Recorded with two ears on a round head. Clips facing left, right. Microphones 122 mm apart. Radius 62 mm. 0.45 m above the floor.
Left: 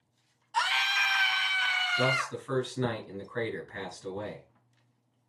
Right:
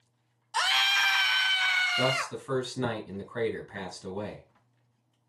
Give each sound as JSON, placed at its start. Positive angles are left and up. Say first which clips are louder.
{"t": 0.5, "sound": "a scream", "louder": "even", "side_deg": -45, "distance_m": 1.1}
{"t": 2.0, "sound": "a man speaking", "louder": "even", "side_deg": -25, "distance_m": 3.5}